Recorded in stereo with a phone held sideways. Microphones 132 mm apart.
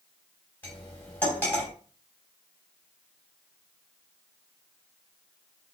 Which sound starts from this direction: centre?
Cutlery clinking, at 0.6 s.